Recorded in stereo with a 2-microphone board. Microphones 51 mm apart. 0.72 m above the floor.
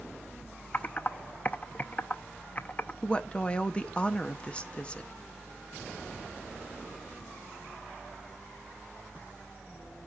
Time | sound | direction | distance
0.7 | typing on a keyboard | 35° left (ahead or behind) | 0.6 m
3.0 | a woman speaking | 25° left (ahead or behind) | 0.8 m